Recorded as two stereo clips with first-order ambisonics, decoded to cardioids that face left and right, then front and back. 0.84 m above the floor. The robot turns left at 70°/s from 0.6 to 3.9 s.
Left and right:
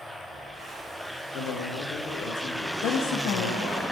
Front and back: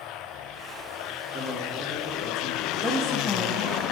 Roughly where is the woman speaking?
Left.